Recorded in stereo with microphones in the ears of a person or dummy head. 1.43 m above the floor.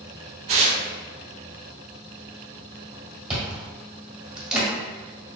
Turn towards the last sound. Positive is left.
turn(degrees=0)  # may be behind; listen again after turning